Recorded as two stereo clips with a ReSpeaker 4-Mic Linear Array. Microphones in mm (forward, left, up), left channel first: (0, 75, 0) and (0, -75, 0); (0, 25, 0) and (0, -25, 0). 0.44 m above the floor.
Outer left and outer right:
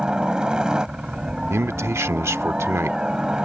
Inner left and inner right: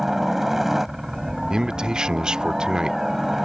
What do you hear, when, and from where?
0.0 s a helicopter: 5° right (ahead or behind)
1.5 s a man speaking: 15° right (ahead or behind)